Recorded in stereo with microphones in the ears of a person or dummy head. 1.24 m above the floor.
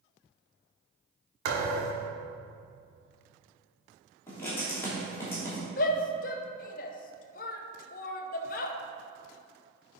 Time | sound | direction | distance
1.4 | a thud | 70° right (ahead or behind) | 2 m
4.3 | writing | 5° left (ahead or behind) | 3 m
5.8 | a shout | 40° left (ahead or behind) | 0.7 m